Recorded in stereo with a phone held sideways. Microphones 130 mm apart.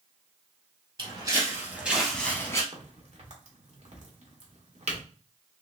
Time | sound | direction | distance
1.0 | footsteps | 40° right (ahead or behind) | 2.0 m
2.7 | a crack | 60° right (ahead or behind) | 1.2 m